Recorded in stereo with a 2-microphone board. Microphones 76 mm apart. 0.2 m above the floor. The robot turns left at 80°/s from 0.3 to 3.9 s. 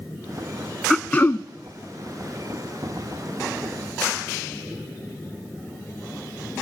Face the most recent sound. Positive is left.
turn(degrees=-65)